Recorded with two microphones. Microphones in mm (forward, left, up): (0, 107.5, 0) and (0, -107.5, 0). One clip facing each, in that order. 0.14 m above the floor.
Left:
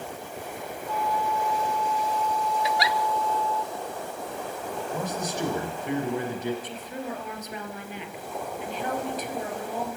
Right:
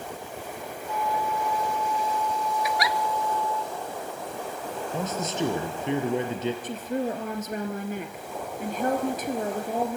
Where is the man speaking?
25° right (ahead or behind), 3.5 m.